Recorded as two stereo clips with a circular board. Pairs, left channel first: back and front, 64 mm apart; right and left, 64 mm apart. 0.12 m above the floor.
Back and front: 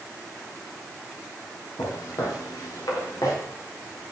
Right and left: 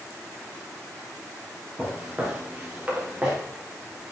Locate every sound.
1.8 s footsteps: 165° left, 4 m; by 3.4 s 155° left, 4.5 m